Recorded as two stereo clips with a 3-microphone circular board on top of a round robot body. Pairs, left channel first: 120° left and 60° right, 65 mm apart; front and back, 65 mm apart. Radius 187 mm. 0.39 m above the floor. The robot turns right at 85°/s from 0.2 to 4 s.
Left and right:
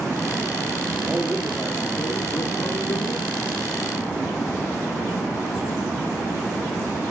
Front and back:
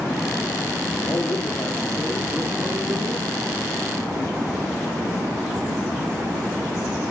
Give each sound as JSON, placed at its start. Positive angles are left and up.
{"t": 1.0, "sound": "a man speaking", "azimuth_deg": -10, "distance_m": 1.2}